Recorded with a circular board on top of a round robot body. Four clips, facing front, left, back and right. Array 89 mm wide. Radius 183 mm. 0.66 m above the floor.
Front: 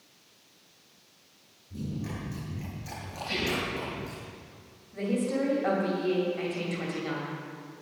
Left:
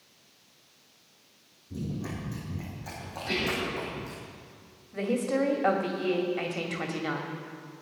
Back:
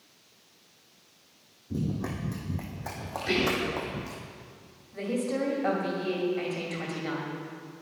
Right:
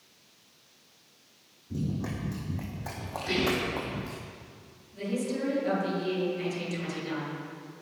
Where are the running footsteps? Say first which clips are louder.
Right 2 dB, back 4 dB; 165° right, 2 m; by 4.2 s 130° right, 2.5 m.